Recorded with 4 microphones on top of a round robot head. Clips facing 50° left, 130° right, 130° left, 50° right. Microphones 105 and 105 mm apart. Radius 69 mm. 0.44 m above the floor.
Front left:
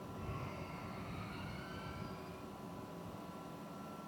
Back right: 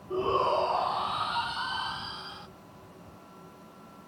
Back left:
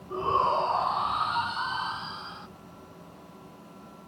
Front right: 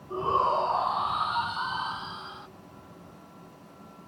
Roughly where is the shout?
Behind right.